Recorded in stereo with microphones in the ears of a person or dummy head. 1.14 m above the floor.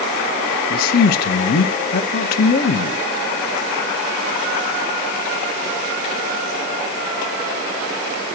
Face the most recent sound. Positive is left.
turn(degrees=45)  # may be behind; listen again after turning